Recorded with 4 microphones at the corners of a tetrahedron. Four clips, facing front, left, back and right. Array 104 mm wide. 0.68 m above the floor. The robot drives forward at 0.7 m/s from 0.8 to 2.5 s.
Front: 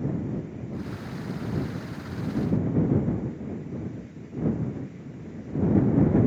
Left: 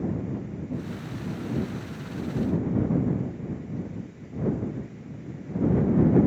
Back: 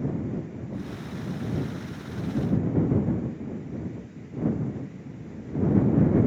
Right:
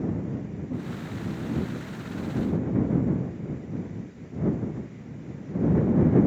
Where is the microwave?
No microwave in this recording.